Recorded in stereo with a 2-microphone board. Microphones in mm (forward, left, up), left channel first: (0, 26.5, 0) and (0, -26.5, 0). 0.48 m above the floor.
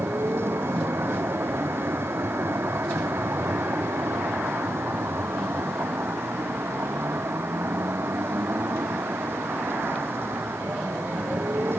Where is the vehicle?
50° right (ahead or behind).